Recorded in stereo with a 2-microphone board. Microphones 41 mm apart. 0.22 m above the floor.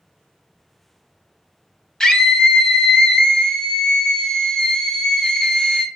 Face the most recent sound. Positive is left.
turn(degrees=15)  # may be behind; listen again after turning